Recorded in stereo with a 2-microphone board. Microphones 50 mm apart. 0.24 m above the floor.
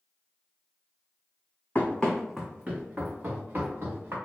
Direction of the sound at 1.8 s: 35° left (ahead or behind).